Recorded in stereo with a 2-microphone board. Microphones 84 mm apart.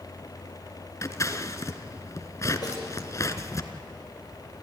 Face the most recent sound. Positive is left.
turn(degrees=45)  # may be behind; listen again after turning